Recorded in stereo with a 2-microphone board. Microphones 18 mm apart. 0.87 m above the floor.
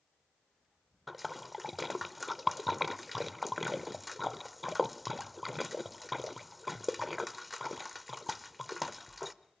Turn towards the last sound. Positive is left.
turn(degrees=-5)  # may be behind; listen again after turning